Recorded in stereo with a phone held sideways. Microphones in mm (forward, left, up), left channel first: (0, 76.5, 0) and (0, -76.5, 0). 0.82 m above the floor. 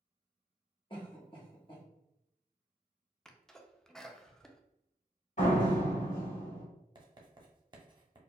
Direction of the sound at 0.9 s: 35° left (ahead or behind).